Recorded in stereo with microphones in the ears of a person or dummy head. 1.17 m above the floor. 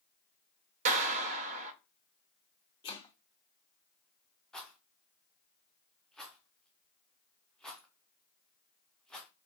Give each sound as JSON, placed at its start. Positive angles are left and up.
{"t": 0.8, "sound": "a clap", "side_deg": -40, "distance_m": 0.6}
{"t": 2.8, "sound": "chopping", "side_deg": 25, "distance_m": 0.7}
{"t": 4.5, "sound": "a rattle", "side_deg": 0, "distance_m": 0.6}